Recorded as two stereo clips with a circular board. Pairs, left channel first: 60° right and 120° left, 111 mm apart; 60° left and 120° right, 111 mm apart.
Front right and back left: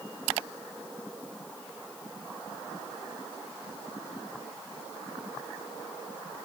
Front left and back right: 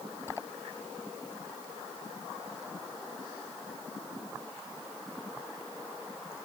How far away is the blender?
No blender in this recording.